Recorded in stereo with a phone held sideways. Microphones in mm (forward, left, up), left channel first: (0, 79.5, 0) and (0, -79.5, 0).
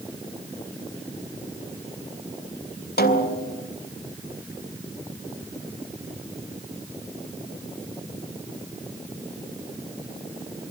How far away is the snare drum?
About 2.5 m.